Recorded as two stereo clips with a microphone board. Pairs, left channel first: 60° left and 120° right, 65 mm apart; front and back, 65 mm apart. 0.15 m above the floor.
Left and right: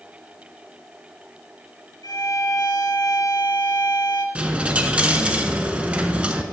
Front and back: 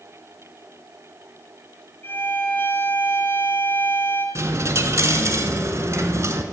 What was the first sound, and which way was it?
A violin, 50° left.